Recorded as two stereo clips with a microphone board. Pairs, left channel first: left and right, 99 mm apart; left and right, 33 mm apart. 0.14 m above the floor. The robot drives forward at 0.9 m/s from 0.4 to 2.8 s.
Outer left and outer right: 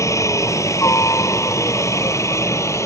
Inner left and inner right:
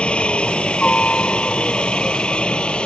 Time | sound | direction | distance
0.0 | a helicopter | 30° left (ahead or behind) | ?